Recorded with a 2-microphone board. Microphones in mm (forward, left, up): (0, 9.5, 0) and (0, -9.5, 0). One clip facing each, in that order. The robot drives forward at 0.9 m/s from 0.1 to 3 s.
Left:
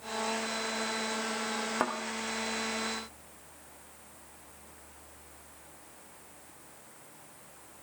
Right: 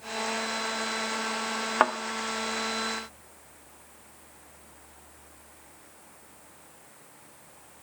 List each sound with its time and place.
1.8 s a thud: 35° right (ahead or behind), 0.8 m